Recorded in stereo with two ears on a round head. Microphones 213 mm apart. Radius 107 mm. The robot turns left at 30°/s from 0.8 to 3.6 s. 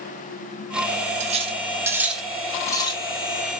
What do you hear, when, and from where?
1.2 s cutlery clinking: 30° right (ahead or behind), 0.9 m; by 3.0 s 25° left (ahead or behind), 0.9 m